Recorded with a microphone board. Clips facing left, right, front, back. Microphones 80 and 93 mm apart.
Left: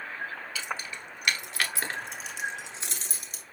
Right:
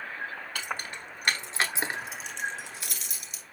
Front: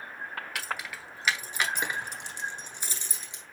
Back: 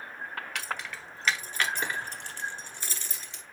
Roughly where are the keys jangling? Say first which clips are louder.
Right 1 dB, even; right.